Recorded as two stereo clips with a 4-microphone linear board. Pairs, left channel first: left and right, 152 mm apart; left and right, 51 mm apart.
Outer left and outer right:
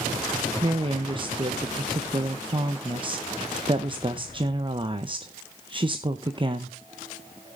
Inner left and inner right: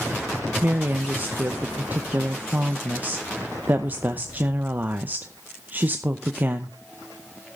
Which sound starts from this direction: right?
A woman speaking, at 0.6 s.